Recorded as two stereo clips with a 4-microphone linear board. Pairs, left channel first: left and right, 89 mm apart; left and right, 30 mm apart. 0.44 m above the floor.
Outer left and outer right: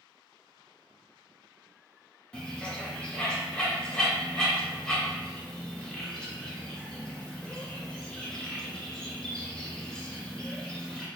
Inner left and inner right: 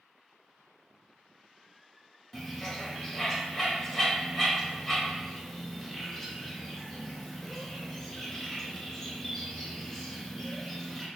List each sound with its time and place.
2.3 s a bird: 10° left (ahead or behind), 0.5 m